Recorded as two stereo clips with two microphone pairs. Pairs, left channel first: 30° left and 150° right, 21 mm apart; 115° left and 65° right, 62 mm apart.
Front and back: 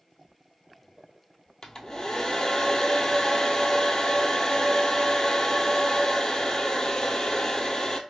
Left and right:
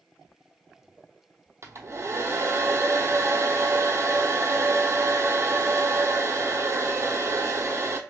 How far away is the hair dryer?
About 0.7 m.